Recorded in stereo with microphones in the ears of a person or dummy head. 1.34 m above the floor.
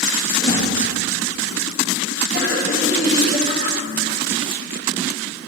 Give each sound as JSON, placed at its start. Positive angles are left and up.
{"t": 0.4, "sound": "a whoosh", "side_deg": 50, "distance_m": 1.9}
{"t": 2.3, "sound": "laughter", "side_deg": 40, "distance_m": 1.3}